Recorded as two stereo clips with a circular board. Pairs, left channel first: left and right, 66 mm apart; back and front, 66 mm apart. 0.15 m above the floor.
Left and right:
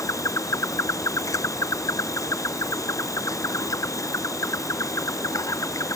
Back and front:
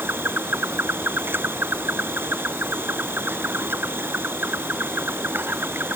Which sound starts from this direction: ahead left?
An insect, at 0.0 s.